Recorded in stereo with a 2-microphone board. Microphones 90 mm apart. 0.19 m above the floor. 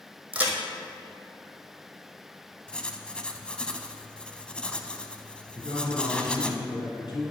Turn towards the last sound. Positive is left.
turn(degrees=55)  # may be behind; listen again after turning